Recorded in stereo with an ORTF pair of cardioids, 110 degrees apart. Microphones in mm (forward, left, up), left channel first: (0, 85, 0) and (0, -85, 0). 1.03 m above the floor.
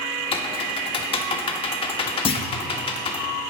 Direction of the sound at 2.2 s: 35° left.